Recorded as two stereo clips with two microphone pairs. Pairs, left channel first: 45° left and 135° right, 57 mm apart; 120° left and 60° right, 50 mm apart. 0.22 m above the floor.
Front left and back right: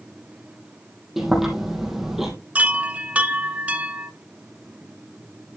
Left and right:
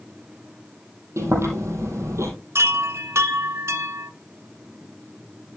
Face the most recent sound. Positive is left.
turn(degrees=-70)